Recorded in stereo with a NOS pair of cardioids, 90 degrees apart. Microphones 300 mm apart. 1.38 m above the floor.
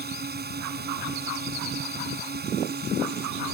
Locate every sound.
0.0 s a drone: 35° right